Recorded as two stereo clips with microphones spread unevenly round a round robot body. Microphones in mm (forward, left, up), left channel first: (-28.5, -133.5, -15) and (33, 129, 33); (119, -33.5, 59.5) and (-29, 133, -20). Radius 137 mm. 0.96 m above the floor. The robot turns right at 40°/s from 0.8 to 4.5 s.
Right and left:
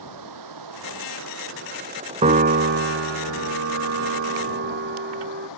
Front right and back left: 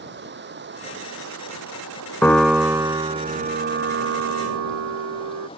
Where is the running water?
90° left; by 5.6 s 120° right.